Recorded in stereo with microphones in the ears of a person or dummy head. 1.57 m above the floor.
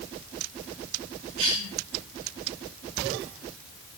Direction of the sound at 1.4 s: 75° right (ahead or behind).